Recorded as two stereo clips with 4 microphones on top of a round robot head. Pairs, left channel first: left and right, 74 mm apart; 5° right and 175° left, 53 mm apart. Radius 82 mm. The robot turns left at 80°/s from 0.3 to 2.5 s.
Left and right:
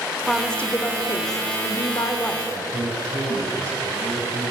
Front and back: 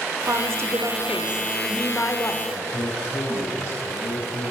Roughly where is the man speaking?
Ahead right.